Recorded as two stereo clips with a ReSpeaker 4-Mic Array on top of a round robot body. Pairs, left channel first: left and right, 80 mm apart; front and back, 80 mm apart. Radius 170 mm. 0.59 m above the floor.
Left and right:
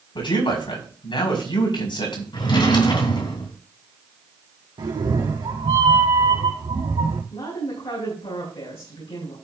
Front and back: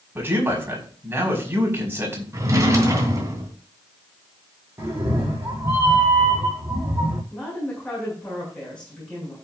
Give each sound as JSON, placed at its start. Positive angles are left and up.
{"t": 0.1, "sound": "a man speaking", "azimuth_deg": 115, "distance_m": 5.5}
{"t": 2.3, "sound": "a drawer", "azimuth_deg": 125, "distance_m": 3.0}
{"t": 4.8, "sound": "a cat meowing", "azimuth_deg": -120, "distance_m": 4.0}
{"t": 7.3, "sound": "a woman speaking", "azimuth_deg": 80, "distance_m": 7.5}